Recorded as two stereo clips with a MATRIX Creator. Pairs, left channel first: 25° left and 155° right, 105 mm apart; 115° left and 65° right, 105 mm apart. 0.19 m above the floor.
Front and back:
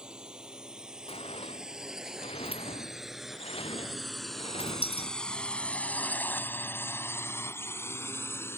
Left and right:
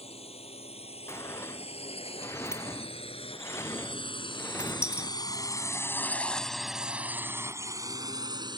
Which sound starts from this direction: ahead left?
A sliding door, at 1.1 s.